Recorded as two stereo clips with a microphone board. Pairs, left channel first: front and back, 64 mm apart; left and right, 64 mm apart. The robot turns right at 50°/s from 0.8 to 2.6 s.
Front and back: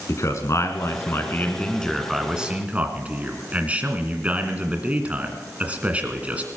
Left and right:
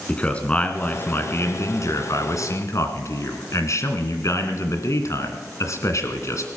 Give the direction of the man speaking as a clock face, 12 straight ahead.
11 o'clock.